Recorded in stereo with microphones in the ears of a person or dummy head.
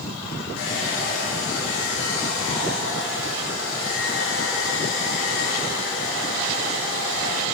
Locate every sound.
0.6 s a hair dryer: 75° left (ahead or behind), 3 m